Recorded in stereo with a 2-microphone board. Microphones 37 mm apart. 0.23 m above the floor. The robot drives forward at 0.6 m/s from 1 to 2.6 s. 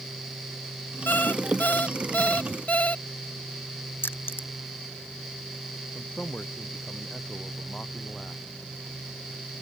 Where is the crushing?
65° left (ahead or behind).